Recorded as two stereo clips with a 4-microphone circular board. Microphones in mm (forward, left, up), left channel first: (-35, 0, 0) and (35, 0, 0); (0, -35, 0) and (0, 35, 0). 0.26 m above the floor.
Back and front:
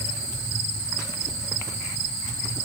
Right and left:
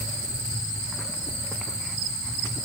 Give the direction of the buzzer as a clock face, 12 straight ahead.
No buzzer in this recording.